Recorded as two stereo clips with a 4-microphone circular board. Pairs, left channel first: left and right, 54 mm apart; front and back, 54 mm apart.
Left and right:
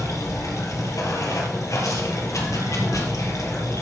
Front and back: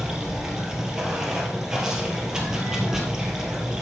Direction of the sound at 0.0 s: 105° left.